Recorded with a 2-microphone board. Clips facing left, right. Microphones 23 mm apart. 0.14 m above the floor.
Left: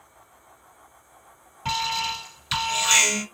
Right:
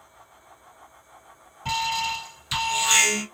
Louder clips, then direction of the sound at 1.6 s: Even; 25° left (ahead or behind).